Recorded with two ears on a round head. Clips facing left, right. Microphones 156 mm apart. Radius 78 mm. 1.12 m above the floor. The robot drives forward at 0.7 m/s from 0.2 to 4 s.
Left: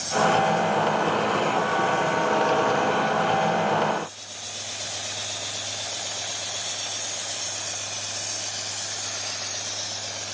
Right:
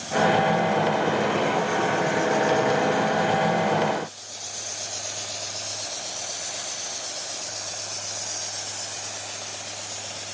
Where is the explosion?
No explosion in this recording.